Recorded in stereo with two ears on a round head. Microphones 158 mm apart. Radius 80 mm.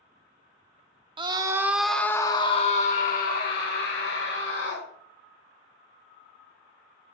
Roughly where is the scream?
Right.